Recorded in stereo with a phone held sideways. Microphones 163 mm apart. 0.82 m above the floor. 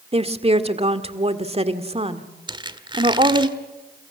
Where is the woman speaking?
40° right (ahead or behind), 1.8 m.